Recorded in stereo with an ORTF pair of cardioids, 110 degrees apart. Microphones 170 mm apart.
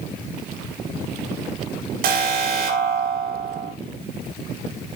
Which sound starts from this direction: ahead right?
An alarm, at 2.0 s.